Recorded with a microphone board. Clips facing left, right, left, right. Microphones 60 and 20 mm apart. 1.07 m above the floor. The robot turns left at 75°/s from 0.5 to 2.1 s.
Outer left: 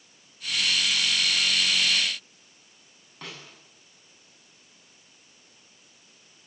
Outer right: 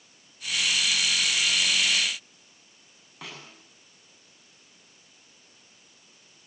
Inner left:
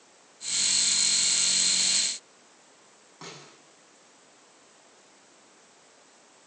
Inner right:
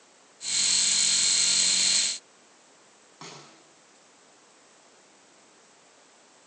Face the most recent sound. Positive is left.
turn(degrees=-5)  # may be behind; listen again after turning